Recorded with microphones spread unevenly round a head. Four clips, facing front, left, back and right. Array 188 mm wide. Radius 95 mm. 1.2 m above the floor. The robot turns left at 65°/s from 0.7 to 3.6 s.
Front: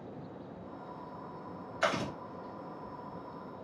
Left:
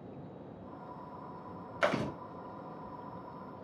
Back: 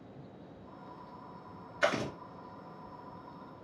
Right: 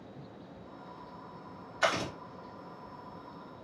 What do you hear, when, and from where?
1.8 s chewing: 105° left, 1.6 m; by 2.1 s 85° left, 1.6 m